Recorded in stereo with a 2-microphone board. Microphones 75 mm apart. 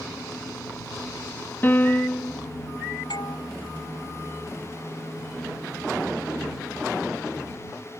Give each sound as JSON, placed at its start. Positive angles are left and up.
{"t": 1.6, "sound": "a piano", "side_deg": 30}
{"t": 3.1, "sound": "a doorbell", "side_deg": 75}